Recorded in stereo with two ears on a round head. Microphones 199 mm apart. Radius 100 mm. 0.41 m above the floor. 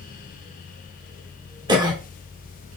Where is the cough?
20° right (ahead or behind), 0.9 m.